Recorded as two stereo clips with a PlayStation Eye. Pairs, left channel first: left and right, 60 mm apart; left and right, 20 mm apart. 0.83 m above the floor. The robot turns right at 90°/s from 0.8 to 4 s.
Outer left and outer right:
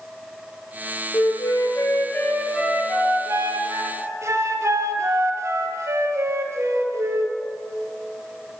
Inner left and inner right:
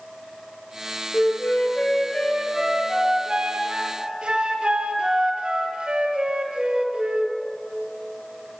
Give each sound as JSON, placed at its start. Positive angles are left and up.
{"t": 1.1, "sound": "a flute", "azimuth_deg": 50, "distance_m": 4.0}